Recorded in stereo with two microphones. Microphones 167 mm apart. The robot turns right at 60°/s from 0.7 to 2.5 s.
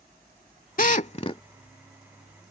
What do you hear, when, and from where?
0.8 s a drill: 55° left (ahead or behind); by 1.4 s 30° left (ahead or behind)